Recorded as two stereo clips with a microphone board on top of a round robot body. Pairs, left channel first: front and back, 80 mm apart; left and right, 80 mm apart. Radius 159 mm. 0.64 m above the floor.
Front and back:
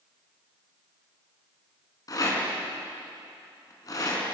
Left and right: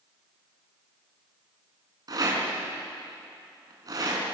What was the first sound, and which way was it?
A rattle, 45° right.